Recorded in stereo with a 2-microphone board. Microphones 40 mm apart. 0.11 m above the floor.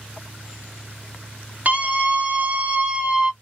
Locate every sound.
1.6 s a scream: 45° right (ahead or behind), 1.5 m; by 3.3 s 25° right (ahead or behind), 1.4 m